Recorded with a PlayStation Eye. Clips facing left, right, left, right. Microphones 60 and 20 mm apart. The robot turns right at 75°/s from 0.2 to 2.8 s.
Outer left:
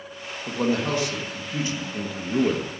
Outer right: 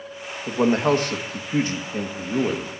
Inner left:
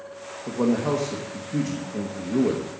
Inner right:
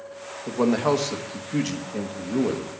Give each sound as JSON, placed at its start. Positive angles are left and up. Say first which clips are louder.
{"t": 0.5, "sound": "a man speaking", "louder": "outer right 5 dB, inner right 2 dB", "azimuth_deg": -160, "distance_m": 1.4}